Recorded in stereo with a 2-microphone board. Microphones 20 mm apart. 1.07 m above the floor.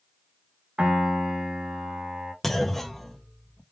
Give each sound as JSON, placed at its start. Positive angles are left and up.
{"t": 0.8, "sound": "a piano", "side_deg": -70, "distance_m": 1.4}
{"t": 2.4, "sound": "a clunk", "side_deg": 10, "distance_m": 0.5}